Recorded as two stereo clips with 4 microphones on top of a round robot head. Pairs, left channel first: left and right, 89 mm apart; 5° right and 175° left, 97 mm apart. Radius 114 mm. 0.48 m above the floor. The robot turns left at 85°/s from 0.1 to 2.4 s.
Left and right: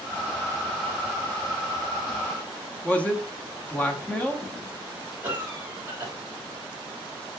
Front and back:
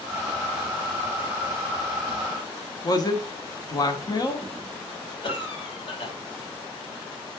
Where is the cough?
20° right, 3 m.